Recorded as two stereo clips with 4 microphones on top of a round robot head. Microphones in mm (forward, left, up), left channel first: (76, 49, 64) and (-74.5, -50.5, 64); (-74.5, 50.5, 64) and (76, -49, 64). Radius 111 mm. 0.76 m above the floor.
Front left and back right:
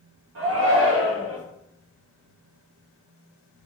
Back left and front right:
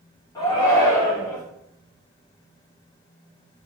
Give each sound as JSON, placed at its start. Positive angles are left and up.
{"t": 0.3, "sound": "a shout", "azimuth_deg": -140, "distance_m": 2.5}